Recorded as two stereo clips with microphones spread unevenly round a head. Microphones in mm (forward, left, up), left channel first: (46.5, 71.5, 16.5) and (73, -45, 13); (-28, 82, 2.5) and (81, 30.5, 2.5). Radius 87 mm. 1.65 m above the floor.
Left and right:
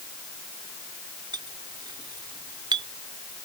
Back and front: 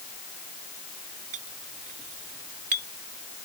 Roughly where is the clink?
Ahead right.